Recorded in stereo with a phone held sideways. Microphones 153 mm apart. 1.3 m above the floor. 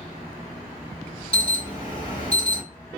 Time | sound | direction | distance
1.3 | an alarm | 40° left (ahead or behind) | 1.3 m